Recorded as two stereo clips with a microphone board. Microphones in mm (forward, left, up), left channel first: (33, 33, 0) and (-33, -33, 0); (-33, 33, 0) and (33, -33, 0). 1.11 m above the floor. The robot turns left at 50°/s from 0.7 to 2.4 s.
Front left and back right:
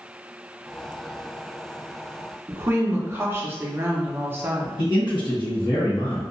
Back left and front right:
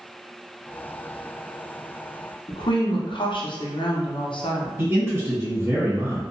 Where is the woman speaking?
160° left, 0.6 m.